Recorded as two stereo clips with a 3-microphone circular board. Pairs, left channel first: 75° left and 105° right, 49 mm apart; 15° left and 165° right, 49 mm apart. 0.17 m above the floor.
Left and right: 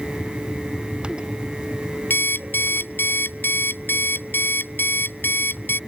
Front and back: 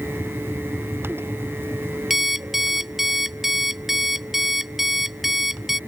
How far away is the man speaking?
I don't hear a man speaking.